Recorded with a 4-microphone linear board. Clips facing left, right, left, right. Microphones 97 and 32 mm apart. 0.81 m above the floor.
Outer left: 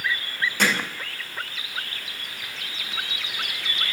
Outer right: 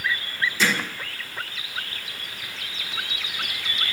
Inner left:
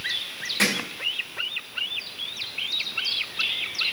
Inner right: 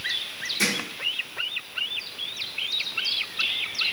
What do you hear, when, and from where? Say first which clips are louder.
0.6 s hammering: outer left 1 dB, inner left 2 dB; 60° left (ahead or behind), 5 m